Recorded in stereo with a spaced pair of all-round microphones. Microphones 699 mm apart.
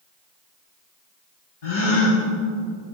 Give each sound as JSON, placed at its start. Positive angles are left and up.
{"t": 1.6, "sound": "a gasp", "side_deg": 70, "distance_m": 4.5}